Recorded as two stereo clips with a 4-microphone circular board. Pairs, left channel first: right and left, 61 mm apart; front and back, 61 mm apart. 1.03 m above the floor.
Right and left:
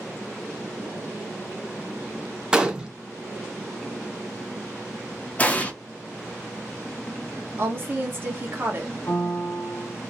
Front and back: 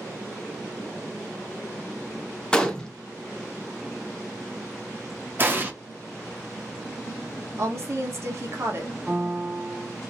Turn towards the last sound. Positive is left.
turn(degrees=-110)